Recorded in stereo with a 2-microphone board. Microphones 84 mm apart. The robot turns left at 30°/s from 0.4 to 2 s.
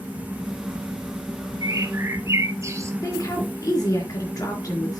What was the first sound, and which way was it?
A bird, 50° right (ahead or behind).